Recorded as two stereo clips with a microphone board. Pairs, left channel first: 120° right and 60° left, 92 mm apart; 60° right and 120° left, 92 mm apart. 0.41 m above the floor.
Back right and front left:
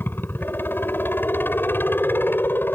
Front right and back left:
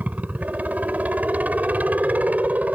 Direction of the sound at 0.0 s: 175° right.